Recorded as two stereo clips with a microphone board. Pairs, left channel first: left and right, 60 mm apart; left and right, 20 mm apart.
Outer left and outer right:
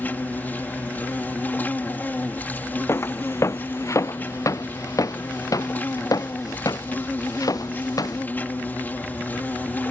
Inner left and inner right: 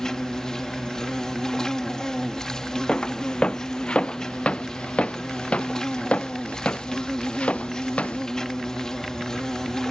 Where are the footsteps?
45° left (ahead or behind); by 8.2 s 80° left.